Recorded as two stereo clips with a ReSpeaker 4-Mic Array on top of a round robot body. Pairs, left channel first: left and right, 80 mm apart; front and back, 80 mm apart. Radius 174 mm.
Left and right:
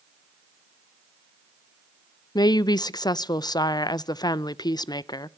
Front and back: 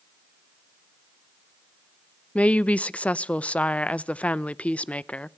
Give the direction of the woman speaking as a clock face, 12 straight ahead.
10 o'clock.